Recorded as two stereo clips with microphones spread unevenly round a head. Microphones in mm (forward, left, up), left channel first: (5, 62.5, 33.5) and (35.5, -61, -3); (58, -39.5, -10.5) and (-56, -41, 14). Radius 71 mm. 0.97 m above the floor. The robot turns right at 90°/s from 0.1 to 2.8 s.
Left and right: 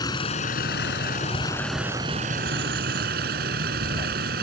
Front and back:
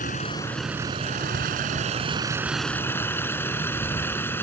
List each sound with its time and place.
0.0 s a vehicle: 45° left; by 4.4 s 70° right